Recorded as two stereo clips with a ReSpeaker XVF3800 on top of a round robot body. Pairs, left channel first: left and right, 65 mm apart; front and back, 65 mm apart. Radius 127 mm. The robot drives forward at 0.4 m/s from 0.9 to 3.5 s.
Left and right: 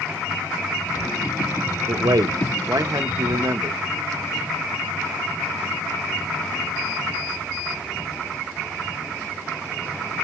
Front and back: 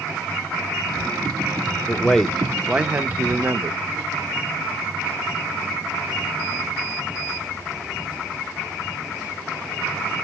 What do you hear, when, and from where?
1.9 s a man speaking: 75° right, 0.8 m; by 3.8 s 125° right, 0.9 m